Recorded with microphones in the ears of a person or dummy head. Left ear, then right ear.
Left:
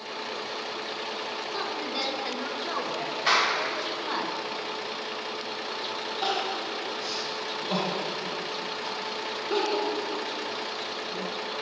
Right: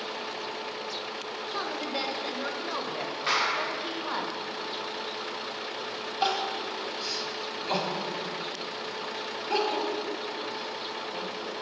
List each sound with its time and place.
1.5 s a woman speaking: 5° right (ahead or behind), 1.1 m
3.3 s a clap: 5° left (ahead or behind), 2 m
6.2 s crying: 70° right (ahead or behind), 1.8 m